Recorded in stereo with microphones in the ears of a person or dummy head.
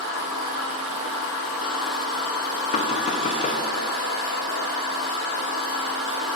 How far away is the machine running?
About 1.6 m.